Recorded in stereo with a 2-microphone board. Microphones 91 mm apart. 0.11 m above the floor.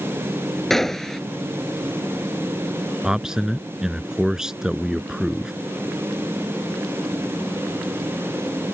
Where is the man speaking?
5° right (ahead or behind).